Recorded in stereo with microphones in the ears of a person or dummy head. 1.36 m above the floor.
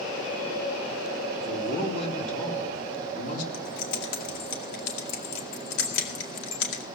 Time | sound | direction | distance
1.4 | a man speaking | 30° left (ahead or behind) | 3 m
3.5 | keys jangling | 70° left (ahead or behind) | 2 m